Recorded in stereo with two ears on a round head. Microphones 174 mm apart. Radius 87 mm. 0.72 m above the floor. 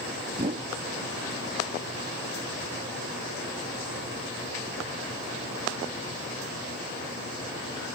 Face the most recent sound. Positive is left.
turn(degrees=-35)  # may be behind; listen again after turning